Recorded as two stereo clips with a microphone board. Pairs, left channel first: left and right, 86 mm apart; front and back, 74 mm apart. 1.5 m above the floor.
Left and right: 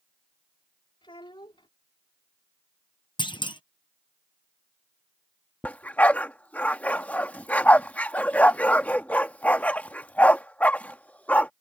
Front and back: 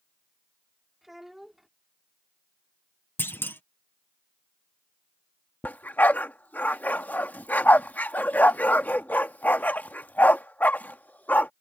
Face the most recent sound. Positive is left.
turn(degrees=40)